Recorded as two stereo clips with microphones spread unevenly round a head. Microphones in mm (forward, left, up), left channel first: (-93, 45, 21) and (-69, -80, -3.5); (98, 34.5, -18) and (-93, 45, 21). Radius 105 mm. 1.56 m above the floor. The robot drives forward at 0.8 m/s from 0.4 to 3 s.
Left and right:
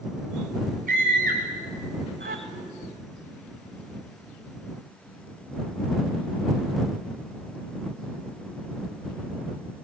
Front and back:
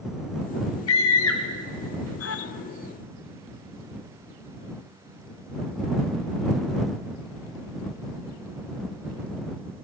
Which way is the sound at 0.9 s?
30° right.